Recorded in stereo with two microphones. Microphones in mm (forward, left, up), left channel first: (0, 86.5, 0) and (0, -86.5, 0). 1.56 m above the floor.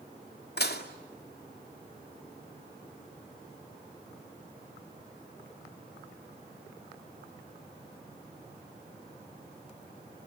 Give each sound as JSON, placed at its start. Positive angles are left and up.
{"t": 0.6, "sound": "dishes clattering", "side_deg": 65, "distance_m": 2.5}